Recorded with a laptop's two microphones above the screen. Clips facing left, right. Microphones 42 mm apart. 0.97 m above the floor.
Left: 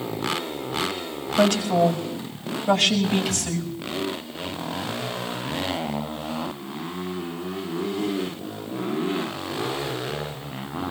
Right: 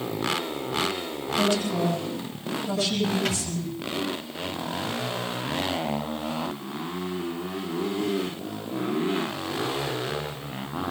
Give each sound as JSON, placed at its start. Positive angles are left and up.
{"t": 1.4, "sound": "a woman speaking", "side_deg": 70, "distance_m": 5.0}
{"t": 3.2, "sound": "a thud", "side_deg": -85, "distance_m": 6.0}